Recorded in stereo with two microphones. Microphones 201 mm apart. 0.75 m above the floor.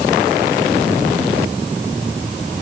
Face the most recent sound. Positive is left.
No sound to turn to.